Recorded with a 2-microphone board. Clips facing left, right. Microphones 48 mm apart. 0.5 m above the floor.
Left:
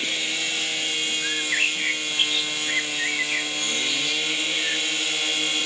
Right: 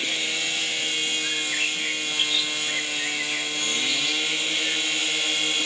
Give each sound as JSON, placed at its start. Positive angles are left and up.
{"t": 1.2, "sound": "a bird", "side_deg": 30, "distance_m": 1.0}